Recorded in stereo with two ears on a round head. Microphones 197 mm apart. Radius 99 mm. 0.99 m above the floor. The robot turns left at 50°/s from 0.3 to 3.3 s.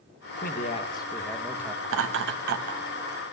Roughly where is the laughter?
Right.